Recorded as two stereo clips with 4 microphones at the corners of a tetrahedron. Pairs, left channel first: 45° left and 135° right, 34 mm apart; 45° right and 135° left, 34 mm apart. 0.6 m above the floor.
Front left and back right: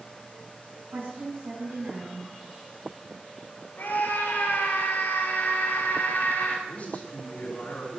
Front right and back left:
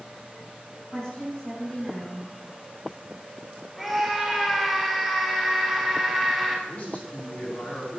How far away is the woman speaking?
About 6 m.